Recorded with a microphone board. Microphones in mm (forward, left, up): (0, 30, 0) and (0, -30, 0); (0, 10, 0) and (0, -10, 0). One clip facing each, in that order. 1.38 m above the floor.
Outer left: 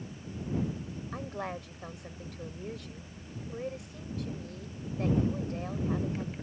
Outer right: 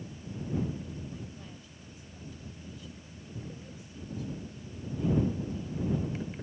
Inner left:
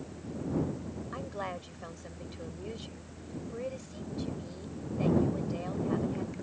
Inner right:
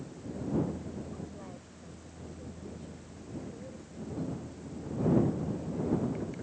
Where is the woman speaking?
70° left (ahead or behind).